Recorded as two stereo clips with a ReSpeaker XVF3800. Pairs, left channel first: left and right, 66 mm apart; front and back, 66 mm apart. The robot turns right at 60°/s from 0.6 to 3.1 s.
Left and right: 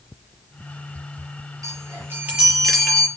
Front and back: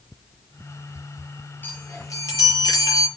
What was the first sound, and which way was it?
A chime, 60° right.